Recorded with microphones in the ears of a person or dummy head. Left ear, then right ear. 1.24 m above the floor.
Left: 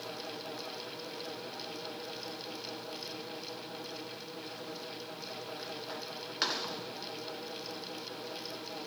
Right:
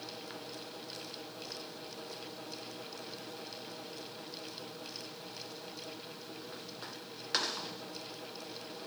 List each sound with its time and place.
Only background noise.